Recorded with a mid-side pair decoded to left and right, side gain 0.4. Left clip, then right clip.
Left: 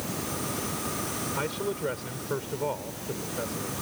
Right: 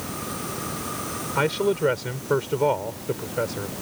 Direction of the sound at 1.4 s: 65° right.